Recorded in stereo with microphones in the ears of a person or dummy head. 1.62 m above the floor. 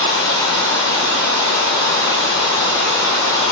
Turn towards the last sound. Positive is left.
turn(degrees=15)  # may be behind; listen again after turning